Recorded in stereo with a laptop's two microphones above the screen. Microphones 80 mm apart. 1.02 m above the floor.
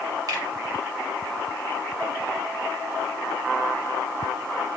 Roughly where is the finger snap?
Right.